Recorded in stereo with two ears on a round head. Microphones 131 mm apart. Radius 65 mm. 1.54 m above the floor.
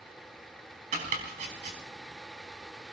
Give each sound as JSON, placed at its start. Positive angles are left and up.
{"t": 0.9, "sound": "chopping", "side_deg": -60, "distance_m": 4.5}